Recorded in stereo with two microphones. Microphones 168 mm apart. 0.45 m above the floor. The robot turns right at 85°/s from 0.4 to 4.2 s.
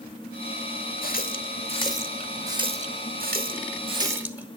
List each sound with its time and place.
1.0 s a running tap: 60° left (ahead or behind), 0.9 m; by 4.5 s 10° right (ahead or behind), 0.9 m